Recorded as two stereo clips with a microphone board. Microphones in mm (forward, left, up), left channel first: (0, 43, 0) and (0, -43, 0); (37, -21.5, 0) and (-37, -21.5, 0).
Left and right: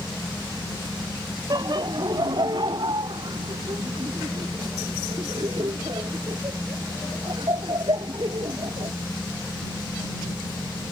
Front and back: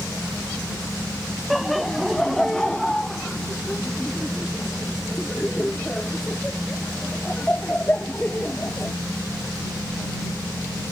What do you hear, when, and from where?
1.5 s laughter: 90° right; by 8.9 s 70° right